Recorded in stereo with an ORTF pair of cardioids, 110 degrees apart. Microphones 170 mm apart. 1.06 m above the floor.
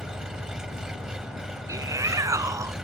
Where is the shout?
20° right.